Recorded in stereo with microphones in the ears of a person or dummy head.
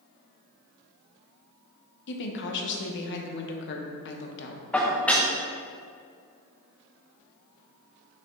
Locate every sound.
2.1 s a woman speaking: 55° left (ahead or behind), 0.9 m
4.7 s dishes clattering: 5° left (ahead or behind), 0.7 m